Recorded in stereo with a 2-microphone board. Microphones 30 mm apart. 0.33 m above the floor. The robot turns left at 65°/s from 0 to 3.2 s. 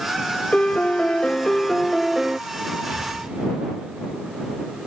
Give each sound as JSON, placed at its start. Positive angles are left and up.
{"t": 0.5, "sound": "a piano", "azimuth_deg": 95}
{"t": 2.9, "sound": "an explosion", "side_deg": -65}